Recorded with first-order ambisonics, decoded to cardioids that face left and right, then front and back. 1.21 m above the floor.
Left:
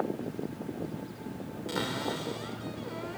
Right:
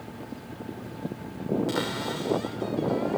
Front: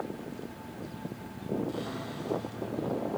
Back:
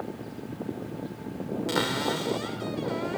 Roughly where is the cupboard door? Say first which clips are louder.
Right 3 dB, back 10 dB; behind.